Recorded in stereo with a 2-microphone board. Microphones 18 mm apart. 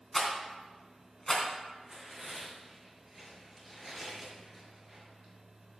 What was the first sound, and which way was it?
A rattle, 15° left (ahead or behind).